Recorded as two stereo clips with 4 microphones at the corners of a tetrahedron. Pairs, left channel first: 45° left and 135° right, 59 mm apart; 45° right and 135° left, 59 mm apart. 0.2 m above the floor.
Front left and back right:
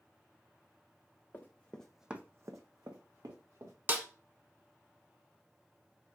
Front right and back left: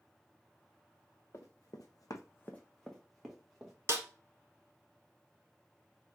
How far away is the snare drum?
About 0.8 m.